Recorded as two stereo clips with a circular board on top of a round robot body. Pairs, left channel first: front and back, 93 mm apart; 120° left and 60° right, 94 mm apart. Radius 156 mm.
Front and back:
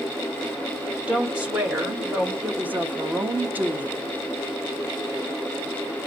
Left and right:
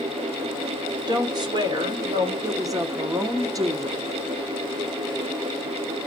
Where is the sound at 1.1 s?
100° right, 2.5 m.